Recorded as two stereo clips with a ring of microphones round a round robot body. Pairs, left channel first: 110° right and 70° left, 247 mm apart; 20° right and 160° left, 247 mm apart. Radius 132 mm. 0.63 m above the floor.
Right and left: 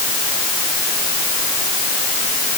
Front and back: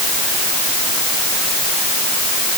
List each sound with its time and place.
Only background noise.